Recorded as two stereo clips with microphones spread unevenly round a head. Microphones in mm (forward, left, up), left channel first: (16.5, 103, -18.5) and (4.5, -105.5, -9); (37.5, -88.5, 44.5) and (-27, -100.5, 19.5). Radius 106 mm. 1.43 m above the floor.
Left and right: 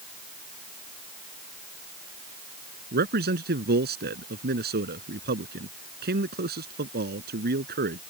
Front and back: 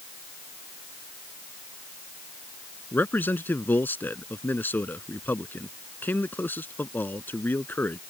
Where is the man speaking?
50° right.